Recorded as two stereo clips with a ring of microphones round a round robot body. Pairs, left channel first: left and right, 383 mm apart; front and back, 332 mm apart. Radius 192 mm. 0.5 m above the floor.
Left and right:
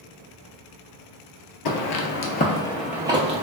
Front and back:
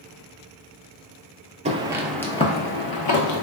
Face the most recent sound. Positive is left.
turn(degrees=-20)